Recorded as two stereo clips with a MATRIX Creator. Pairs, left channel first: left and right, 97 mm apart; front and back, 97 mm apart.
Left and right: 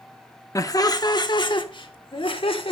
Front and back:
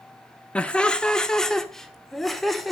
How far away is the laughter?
About 1.0 m.